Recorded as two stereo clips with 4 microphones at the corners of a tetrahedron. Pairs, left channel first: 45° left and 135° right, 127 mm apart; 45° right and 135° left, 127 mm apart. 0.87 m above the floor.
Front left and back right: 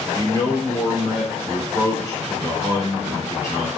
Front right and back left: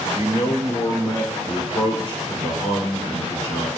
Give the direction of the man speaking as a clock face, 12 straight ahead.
12 o'clock.